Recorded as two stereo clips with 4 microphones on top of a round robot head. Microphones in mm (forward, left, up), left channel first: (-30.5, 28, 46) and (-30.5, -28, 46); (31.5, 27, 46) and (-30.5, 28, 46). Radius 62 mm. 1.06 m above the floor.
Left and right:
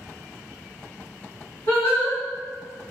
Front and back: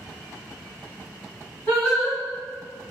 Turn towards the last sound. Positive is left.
turn(degrees=60)